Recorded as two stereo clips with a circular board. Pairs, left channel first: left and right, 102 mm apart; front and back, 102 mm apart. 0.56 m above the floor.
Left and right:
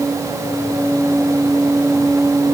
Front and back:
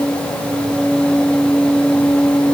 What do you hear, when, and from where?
Only background noise.